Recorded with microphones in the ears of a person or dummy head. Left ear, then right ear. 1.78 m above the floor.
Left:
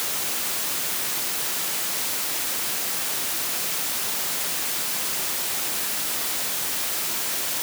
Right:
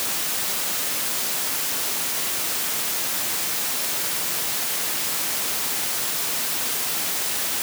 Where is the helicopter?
No helicopter in this recording.